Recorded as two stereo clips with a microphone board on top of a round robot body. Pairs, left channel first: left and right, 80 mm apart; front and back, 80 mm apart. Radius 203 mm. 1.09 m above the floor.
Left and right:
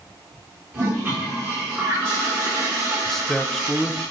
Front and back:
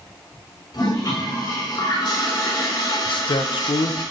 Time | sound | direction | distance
0.7 | a toilet flushing | 30° right | 4 m
3.0 | a man speaking | 5° left | 0.6 m